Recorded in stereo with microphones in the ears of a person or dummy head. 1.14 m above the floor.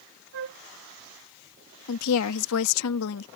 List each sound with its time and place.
0.3 s a flute: 75° right (ahead or behind)
1.9 s a woman speaking: 75° left (ahead or behind)